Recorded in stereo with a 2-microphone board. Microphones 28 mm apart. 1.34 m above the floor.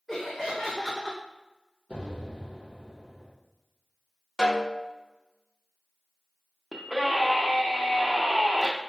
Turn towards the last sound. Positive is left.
turn(degrees=-20)  # may be behind; listen again after turning